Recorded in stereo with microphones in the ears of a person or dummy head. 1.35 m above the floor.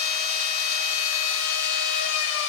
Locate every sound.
0.0 s a machine running: 85° left, 4 m